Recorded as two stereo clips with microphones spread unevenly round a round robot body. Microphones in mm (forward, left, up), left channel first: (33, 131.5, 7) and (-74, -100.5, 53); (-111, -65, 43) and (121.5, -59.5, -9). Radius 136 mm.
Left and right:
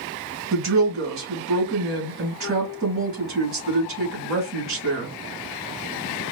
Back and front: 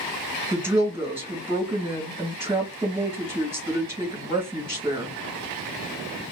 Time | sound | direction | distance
0.5 | a woman speaking | 70° right | 2.5 m